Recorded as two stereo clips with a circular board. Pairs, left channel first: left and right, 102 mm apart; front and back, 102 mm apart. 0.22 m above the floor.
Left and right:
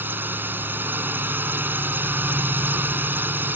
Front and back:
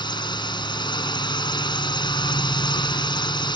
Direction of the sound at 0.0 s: 25° right.